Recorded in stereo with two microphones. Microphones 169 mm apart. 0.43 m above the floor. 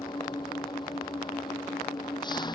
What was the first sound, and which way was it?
An engine running, 30° left (ahead or behind).